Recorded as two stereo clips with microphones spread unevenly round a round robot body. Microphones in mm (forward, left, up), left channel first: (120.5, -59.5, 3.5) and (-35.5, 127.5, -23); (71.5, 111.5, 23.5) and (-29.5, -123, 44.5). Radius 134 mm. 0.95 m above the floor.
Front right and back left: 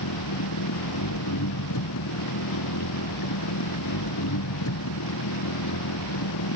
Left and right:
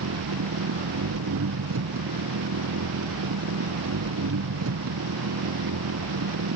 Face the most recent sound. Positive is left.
turn(degrees=-80)